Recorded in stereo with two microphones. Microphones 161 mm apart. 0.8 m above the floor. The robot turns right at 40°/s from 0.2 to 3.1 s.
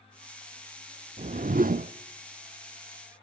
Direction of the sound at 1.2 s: 55° right (ahead or behind).